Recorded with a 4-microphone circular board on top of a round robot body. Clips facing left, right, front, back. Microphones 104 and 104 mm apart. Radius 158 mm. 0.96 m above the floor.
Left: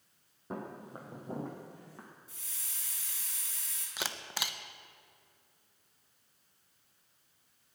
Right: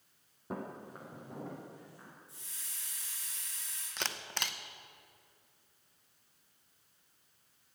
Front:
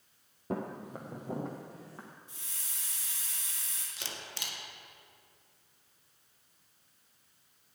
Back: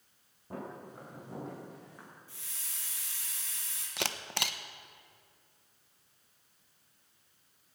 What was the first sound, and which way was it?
Footsteps, 5° right.